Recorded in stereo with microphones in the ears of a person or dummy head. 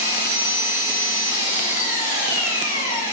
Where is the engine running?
15° right (ahead or behind), 1.3 m.